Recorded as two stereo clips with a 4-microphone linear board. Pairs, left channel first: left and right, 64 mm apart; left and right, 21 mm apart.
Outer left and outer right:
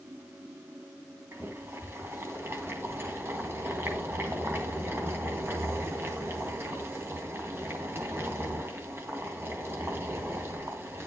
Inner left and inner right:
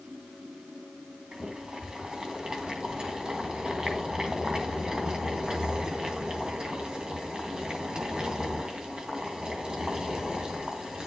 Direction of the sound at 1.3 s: 40° right (ahead or behind).